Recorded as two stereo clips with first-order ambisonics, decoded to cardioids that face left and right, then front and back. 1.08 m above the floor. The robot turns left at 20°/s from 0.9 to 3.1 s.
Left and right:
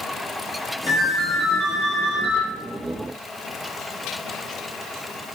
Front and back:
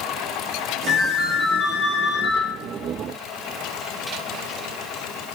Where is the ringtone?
135° left, 1.3 m; by 2.4 s 105° left, 1.3 m.